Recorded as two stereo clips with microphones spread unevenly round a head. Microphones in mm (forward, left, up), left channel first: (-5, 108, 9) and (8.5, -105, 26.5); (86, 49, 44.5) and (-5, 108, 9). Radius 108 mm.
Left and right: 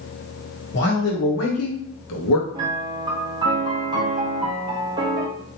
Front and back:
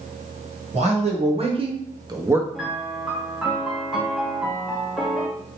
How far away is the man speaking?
About 1.3 m.